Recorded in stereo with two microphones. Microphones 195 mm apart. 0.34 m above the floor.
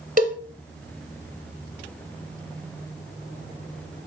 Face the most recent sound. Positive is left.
turn(degrees=-45)  # may be behind; listen again after turning